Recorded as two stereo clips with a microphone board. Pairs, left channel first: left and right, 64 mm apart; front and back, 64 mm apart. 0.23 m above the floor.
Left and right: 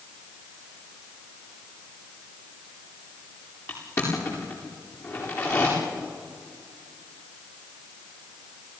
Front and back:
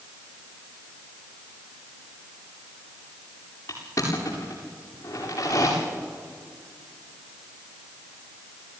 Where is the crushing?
40° left, 8.5 m.